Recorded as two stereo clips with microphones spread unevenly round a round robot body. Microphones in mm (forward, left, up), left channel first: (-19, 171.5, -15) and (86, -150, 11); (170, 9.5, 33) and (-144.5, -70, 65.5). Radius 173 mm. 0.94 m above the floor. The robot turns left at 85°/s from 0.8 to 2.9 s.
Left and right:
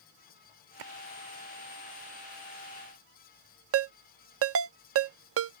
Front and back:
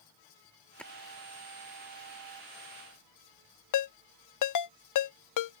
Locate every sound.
0.8 s a splash: 75° right; by 0.9 s 85° right
3.7 s a ringtone: 20° right